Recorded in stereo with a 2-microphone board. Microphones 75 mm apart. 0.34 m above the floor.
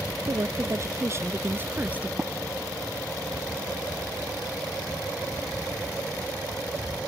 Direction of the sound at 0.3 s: 50° right (ahead or behind).